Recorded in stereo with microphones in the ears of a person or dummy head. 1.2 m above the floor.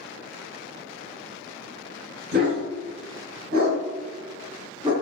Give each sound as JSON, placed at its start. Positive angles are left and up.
{"t": 2.3, "sound": "a dog barking", "side_deg": -65, "distance_m": 1.7}